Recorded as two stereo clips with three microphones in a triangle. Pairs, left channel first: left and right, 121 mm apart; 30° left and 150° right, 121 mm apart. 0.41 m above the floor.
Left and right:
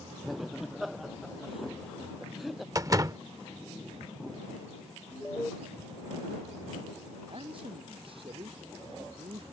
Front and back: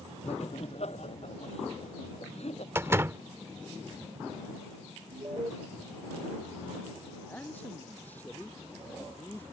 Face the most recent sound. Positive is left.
turn(degrees=-45)